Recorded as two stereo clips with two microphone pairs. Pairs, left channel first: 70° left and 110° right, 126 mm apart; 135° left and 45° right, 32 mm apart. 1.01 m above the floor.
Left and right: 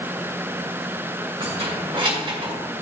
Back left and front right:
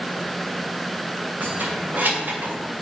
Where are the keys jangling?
75° right, 3 m; by 2.5 s 65° right, 2.5 m.